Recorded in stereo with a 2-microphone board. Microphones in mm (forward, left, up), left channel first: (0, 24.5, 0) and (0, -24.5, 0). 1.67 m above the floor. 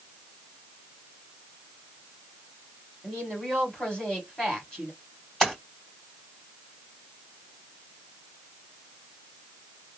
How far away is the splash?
About 2 m.